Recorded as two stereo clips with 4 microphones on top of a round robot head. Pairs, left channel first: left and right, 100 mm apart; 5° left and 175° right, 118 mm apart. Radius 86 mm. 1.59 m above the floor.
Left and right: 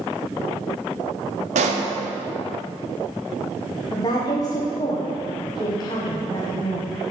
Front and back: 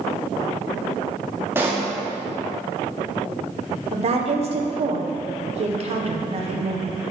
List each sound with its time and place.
1.6 s a pop: 100° right, 0.9 m
3.9 s a woman speaking: 150° left, 1.3 m